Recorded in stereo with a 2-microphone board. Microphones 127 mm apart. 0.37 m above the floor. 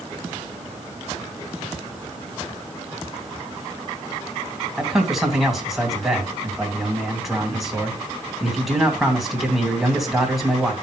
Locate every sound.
4.8 s a man speaking: centre (ahead or behind), 3 m